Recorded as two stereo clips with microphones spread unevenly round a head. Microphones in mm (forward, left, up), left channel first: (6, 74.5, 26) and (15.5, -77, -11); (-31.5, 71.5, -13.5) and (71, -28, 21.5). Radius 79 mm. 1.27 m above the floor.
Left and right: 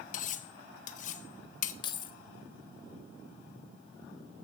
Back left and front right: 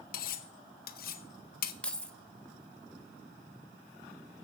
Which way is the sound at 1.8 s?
45° left.